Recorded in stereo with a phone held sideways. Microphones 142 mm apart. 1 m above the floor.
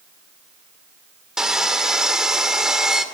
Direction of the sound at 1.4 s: 5° right (ahead or behind).